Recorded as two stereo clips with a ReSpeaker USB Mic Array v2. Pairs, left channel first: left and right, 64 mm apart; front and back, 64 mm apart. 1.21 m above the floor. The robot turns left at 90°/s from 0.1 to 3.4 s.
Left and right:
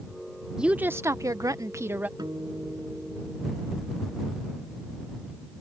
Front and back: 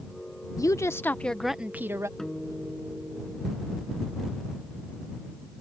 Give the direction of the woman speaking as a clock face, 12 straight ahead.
12 o'clock.